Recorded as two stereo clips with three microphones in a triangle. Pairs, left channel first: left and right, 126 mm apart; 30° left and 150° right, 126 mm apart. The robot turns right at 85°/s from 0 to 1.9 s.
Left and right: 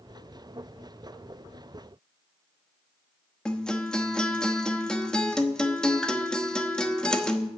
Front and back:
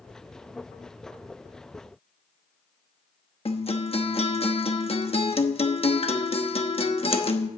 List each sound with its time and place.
3.5 s a guitar: 10° left, 1.0 m